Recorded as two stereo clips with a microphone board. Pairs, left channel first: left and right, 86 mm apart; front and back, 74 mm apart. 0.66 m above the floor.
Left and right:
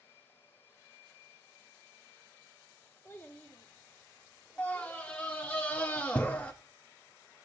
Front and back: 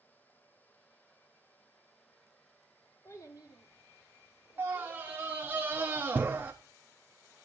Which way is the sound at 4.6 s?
150° left.